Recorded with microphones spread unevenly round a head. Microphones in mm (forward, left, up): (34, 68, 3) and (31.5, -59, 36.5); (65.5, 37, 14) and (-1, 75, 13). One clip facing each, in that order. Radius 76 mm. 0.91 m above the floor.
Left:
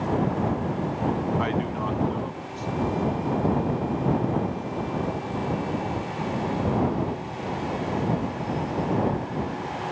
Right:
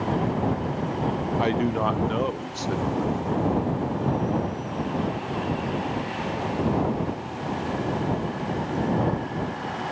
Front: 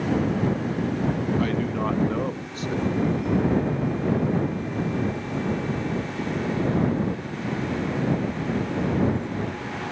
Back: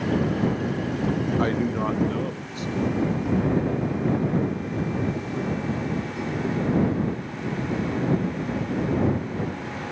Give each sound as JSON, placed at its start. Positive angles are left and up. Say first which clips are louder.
{"t": 1.4, "sound": "a man speaking", "louder": "right 3 dB, back 1 dB", "azimuth_deg": -160}